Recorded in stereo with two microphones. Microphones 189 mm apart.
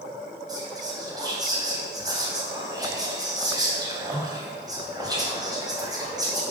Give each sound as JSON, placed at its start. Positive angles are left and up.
{"t": 0.5, "sound": "whispering", "side_deg": -20, "distance_m": 2.5}